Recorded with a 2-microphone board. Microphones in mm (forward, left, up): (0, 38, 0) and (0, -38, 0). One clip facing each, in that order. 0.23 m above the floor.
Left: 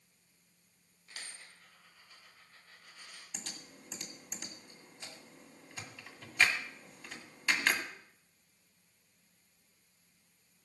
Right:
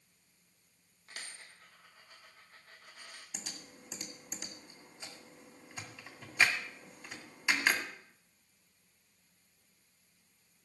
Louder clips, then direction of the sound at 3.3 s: Left 1 dB; 10° right (ahead or behind).